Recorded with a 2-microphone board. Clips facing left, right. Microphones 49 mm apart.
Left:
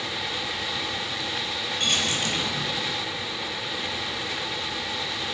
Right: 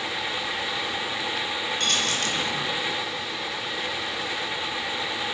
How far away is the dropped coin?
About 6.5 m.